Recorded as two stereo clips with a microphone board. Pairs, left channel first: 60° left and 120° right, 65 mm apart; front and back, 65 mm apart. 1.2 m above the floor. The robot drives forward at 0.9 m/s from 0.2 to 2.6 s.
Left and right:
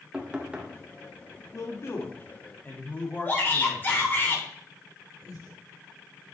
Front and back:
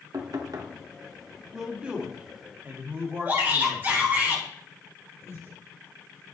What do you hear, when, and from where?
0.1 s knocking: 165° left, 1.5 m; by 0.7 s 170° left, 1.9 m
1.5 s a man speaking: 100° left, 2 m; by 3.9 s 125° left, 2.5 m
3.2 s a shout: 120° left, 4.5 m
5.2 s breathing: 50° left, 3.5 m